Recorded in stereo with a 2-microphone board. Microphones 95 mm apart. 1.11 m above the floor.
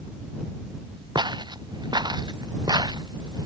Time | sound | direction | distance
1.1 | footsteps | 50° right (ahead or behind) | ?